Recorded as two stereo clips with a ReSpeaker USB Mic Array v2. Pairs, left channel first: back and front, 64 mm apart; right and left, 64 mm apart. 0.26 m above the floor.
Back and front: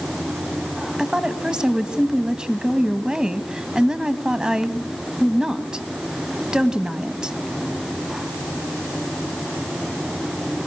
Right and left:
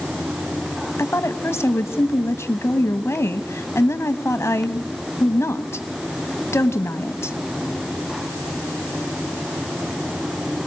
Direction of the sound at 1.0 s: 75° right.